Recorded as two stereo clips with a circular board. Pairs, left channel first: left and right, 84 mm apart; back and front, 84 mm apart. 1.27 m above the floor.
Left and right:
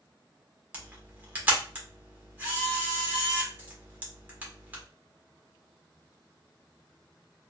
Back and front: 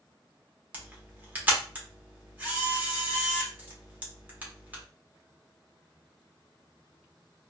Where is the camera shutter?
45° right, 1.0 m.